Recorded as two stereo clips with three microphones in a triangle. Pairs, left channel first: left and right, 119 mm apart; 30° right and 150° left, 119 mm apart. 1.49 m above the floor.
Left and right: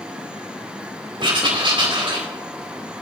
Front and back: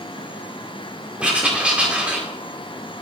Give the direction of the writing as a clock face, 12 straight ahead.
4 o'clock.